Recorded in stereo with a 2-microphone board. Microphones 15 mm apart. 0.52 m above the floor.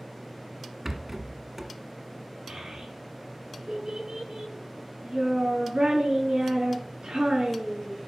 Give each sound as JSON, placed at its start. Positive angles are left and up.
{"t": 0.8, "sound": "a rattle", "side_deg": -25, "distance_m": 1.2}
{"t": 2.5, "sound": "a child speaking", "side_deg": -80, "distance_m": 5.0}